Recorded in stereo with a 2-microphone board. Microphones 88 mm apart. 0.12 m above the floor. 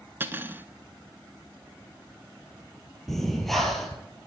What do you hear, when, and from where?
0.2 s cutlery clinking: 25° right (ahead or behind), 0.7 m
3.1 s breathing: centre (ahead or behind), 2.5 m